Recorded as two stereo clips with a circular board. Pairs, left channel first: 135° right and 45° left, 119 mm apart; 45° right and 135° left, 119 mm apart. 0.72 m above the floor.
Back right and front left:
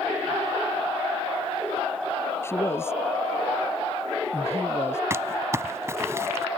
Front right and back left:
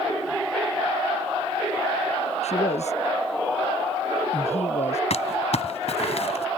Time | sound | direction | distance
2.4 | a man speaking | 65° right | ?
5.1 | crumpling | 20° right | ?